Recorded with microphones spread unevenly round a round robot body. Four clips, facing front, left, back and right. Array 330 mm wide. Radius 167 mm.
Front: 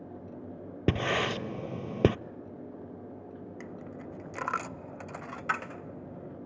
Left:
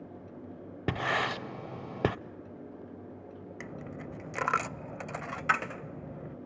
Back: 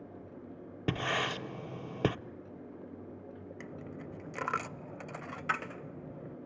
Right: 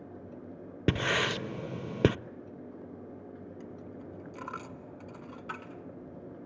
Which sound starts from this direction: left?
A dropped coin, at 3.6 s.